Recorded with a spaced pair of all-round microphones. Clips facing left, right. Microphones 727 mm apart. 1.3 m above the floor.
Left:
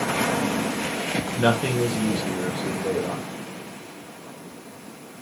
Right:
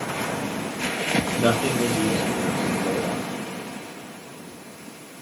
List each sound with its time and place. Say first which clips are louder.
1.4 s a man speaking: left 1 dB; 25° left (ahead or behind), 0.5 m; by 3.2 s 45° left (ahead or behind), 1.5 m